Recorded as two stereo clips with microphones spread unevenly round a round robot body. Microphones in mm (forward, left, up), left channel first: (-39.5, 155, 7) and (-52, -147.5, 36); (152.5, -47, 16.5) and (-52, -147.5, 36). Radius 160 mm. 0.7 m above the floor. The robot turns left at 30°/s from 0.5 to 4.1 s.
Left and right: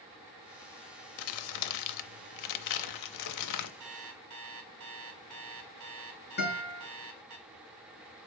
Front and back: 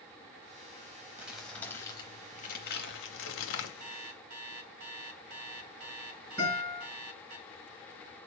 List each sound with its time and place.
1.2 s crumpling: 125° left, 0.6 m; by 3.7 s 50° left, 0.6 m
3.8 s an alarm clock: 120° right, 2.5 m; by 7.4 s 125° right, 2.5 m
6.4 s a guitar: 145° left, 4.5 m